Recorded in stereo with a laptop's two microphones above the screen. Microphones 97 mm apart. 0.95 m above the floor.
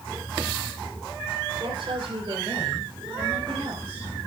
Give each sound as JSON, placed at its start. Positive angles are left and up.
{"t": 1.6, "sound": "a woman speaking", "side_deg": -55, "distance_m": 3.5}